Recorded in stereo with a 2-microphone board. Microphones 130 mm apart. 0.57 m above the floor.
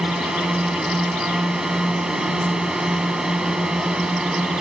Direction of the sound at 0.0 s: 5° right (ahead or behind).